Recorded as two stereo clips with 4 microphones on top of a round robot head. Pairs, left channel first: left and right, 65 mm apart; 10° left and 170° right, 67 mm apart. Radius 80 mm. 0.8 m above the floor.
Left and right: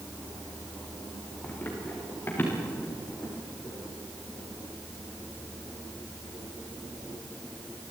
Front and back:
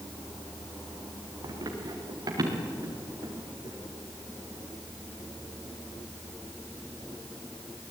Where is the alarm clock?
I don't hear an alarm clock.